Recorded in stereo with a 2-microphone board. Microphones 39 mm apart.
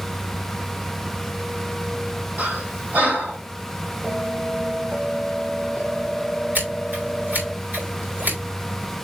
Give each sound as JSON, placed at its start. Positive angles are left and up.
{"t": 2.4, "sound": "breathing", "side_deg": -45, "distance_m": 2.5}
{"t": 4.0, "sound": "a bell", "side_deg": -60, "distance_m": 3.5}
{"t": 6.5, "sound": "scissors", "side_deg": -55, "distance_m": 4.0}